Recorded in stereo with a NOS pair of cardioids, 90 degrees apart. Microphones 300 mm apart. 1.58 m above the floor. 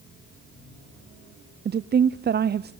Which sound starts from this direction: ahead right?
A woman speaking, at 1.6 s.